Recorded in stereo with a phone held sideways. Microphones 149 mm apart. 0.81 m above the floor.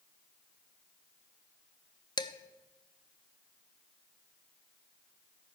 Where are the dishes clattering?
30° left (ahead or behind), 0.6 m.